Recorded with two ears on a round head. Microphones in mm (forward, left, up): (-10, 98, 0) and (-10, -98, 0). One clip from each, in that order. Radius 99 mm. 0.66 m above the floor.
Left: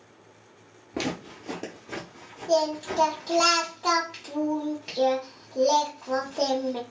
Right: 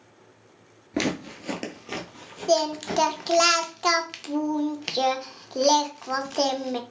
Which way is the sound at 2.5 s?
60° right (ahead or behind).